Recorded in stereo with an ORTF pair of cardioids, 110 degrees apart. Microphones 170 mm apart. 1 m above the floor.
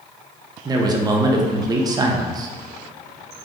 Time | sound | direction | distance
0.7 | a man speaking | 25° right | 0.6 m